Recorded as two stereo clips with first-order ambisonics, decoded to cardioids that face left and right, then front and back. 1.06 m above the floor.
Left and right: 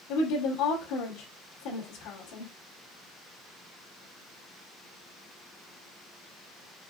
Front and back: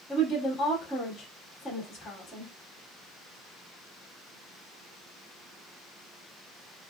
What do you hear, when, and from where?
0.1 s a woman speaking: 75° left, 2 m